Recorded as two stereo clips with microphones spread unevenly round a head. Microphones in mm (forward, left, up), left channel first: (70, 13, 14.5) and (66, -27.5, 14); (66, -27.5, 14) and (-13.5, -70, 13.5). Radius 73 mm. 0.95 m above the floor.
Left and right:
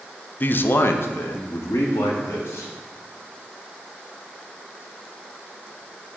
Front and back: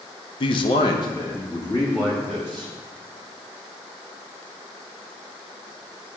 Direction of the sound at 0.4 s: 45° left.